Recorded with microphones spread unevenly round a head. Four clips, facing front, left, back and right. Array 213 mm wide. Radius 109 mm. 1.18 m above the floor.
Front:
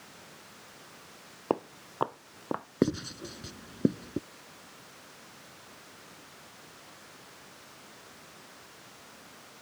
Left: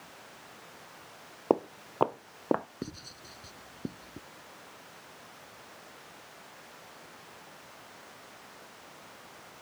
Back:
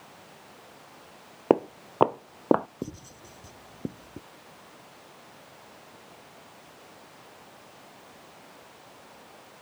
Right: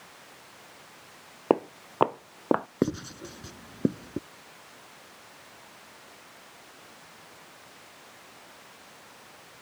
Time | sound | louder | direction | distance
1.5 | footsteps | right 3 dB, back 9 dB | 160° right | ?
2.8 | writing | right 14 dB, front 10 dB | 40° right | ?